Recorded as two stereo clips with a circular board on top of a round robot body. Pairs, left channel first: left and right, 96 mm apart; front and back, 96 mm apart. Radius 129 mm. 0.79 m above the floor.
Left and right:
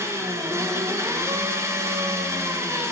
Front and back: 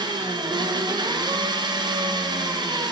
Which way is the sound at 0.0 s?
145° right.